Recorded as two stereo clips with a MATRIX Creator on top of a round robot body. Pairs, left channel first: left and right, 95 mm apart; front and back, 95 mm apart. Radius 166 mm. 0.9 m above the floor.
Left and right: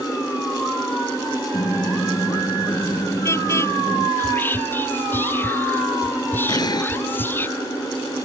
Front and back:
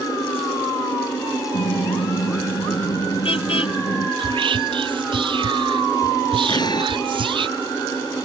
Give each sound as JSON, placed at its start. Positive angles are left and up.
{"t": 1.5, "sound": "a car horn", "azimuth_deg": 30}
{"t": 4.2, "sound": "whispering", "azimuth_deg": 155}
{"t": 6.5, "sound": "an explosion", "azimuth_deg": 45}